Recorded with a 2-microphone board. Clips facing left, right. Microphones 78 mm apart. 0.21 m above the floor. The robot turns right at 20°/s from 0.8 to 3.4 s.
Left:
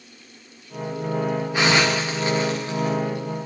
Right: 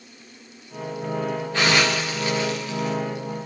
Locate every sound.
1.5 s a hiss: 15° left (ahead or behind), 5 m; by 3.0 s 40° left (ahead or behind), 5 m